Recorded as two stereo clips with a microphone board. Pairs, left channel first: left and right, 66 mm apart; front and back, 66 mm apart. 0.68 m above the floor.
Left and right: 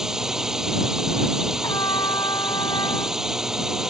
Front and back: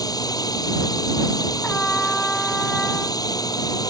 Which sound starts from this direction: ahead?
A drone, at 0.0 s.